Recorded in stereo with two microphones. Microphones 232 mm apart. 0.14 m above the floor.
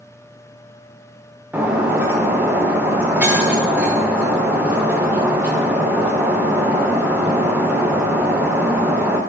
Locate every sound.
1.5 s breaking glass: 10° right (ahead or behind), 5 m